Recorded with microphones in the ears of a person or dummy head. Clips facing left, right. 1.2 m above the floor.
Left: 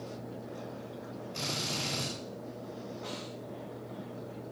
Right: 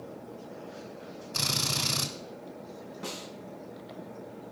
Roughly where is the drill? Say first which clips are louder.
Right 2 dB; right.